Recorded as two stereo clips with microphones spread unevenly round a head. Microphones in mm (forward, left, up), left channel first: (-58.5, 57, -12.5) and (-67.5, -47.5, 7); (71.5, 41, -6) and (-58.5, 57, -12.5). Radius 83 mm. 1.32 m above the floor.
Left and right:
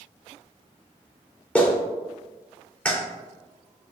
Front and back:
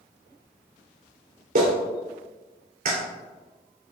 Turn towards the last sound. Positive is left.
turn(degrees=165)